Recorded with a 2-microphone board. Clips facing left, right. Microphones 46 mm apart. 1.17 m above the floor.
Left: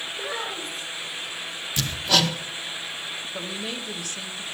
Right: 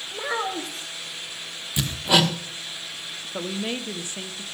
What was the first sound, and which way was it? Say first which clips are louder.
A child speaking: right 6 dB; 80° right.